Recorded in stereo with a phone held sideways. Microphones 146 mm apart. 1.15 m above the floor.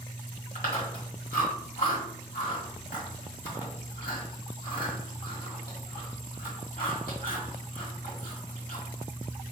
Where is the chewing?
75° left (ahead or behind), 1.7 m.